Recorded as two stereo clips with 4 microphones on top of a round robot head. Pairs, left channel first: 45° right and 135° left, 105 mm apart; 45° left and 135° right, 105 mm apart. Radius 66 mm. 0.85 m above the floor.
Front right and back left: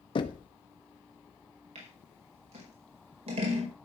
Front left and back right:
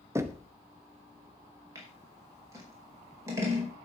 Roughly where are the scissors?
Behind.